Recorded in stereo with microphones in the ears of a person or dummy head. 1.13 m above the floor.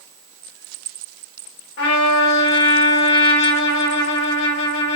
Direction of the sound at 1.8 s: 65° left (ahead or behind).